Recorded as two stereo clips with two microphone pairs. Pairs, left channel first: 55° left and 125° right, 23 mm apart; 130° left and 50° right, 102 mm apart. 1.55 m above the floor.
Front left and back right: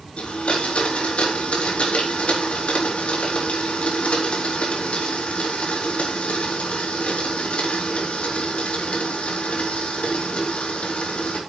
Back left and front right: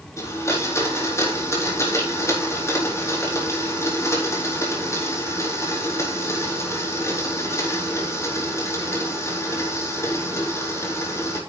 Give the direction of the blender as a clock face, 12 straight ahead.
10 o'clock.